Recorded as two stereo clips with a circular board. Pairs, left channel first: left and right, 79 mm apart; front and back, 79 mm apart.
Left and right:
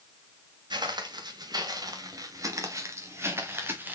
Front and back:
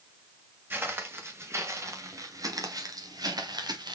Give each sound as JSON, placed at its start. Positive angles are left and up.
{"t": 0.7, "sound": "footsteps", "azimuth_deg": -115, "distance_m": 2.5}